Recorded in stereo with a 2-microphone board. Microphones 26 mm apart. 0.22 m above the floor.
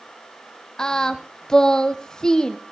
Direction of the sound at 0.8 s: 25° left (ahead or behind).